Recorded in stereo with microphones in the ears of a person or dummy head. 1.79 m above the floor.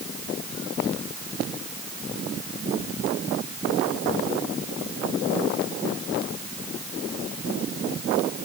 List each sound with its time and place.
Only background noise.